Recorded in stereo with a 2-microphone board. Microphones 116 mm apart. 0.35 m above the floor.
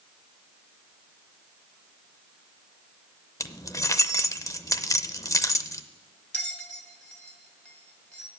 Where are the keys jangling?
30° left (ahead or behind), 0.6 m.